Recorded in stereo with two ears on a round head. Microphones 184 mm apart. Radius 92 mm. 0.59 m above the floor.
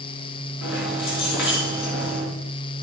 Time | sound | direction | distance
0.6 | keys jangling | 85° left | 3.5 m